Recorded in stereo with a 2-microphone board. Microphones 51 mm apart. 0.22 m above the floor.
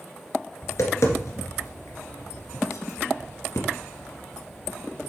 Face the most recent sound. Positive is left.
turn(degrees=70)  # may be behind; listen again after turning